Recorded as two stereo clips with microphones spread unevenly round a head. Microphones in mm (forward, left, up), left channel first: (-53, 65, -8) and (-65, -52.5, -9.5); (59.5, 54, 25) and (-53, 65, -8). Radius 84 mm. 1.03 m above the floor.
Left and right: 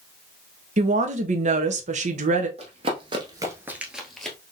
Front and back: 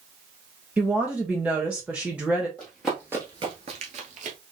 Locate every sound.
0.8 s a woman speaking: 110° right, 0.8 m
2.6 s running footsteps: 70° right, 1.5 m; by 4.4 s 165° left, 1.6 m